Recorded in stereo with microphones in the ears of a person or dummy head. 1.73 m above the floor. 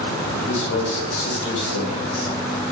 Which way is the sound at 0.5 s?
75° left (ahead or behind).